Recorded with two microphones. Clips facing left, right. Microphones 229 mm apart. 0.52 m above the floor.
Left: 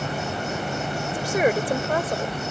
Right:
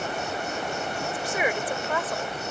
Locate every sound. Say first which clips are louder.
0.0 s an insect: left 2 dB; 70° left (ahead or behind)
1.1 s a woman speaking: left 8 dB; 45° left (ahead or behind)